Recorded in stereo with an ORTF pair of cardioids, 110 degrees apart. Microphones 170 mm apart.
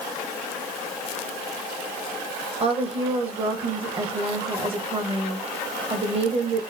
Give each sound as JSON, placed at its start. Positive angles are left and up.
{"t": 2.6, "sound": "a woman speaking", "azimuth_deg": -35, "distance_m": 1.5}